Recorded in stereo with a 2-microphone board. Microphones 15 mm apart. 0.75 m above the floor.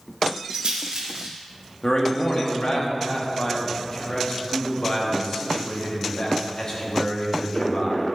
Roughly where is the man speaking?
Left.